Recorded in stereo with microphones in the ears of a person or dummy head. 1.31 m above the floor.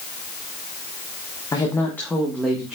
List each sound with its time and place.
1.5 s a woman speaking: 15° left (ahead or behind), 1.5 m; by 2.8 s 10° right (ahead or behind), 1.8 m